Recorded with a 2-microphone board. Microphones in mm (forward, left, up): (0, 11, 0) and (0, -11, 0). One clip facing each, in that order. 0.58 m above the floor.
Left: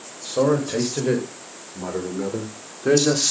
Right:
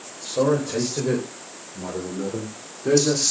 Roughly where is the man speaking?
Left.